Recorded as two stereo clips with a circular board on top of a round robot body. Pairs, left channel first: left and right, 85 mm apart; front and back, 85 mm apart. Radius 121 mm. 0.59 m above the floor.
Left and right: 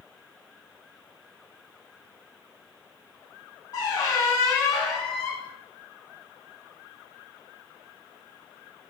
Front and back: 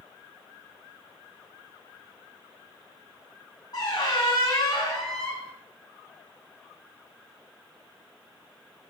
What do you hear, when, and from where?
3.7 s a squeak: 45° left, 0.7 m